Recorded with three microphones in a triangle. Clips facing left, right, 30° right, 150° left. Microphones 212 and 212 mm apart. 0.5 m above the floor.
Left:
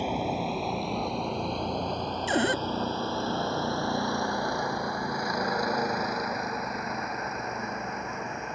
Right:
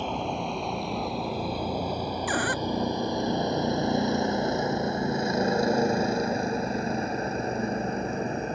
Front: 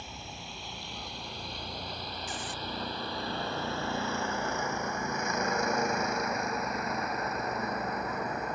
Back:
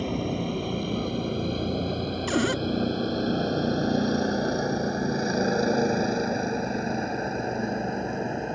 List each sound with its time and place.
0.0 s a vehicle: 170° left; by 8.6 s 145° right
2.3 s a cupboard door: 155° left